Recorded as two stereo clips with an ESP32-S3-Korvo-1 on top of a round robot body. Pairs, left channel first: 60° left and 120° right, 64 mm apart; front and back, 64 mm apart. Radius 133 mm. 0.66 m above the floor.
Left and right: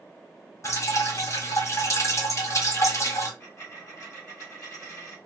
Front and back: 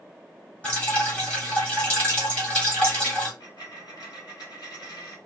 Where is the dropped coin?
10° left, 1.6 m.